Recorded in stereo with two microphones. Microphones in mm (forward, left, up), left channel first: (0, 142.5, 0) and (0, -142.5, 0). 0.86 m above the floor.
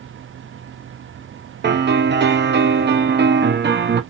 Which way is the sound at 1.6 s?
35° right (ahead or behind).